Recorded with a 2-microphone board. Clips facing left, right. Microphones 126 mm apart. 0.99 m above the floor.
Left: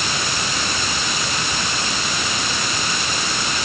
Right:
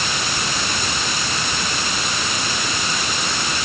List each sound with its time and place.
Only background noise.